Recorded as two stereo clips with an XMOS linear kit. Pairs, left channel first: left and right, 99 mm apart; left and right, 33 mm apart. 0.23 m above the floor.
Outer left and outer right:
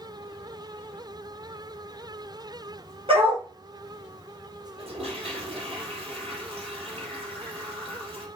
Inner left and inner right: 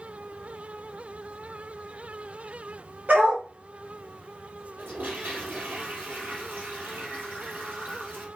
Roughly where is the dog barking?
Right.